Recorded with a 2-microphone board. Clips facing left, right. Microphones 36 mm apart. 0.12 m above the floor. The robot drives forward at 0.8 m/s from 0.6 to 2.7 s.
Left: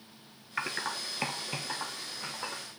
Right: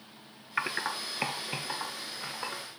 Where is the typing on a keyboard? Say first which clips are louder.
Right 2 dB; 15° right (ahead or behind), 0.6 m; by 2.6 s 5° right (ahead or behind), 2 m.